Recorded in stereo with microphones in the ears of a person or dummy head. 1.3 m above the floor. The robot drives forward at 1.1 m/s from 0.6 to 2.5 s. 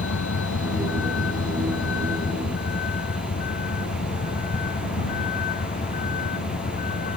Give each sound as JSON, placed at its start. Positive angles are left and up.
{"t": 0.0, "sound": "a vehicle", "side_deg": 60}